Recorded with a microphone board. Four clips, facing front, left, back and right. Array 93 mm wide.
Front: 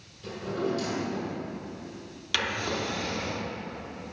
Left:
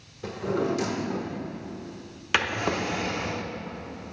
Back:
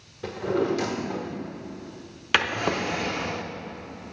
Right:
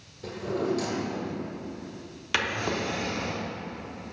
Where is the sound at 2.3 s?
160° left, 0.6 m.